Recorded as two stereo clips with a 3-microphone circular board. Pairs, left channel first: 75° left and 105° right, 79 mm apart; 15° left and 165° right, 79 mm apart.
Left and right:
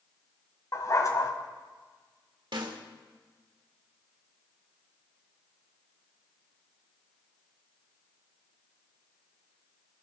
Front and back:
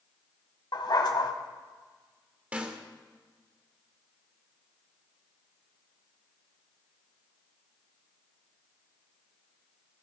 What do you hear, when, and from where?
0.7 s a dog barking: 35° left, 1.6 m
2.5 s a snare drum: 95° right, 1.6 m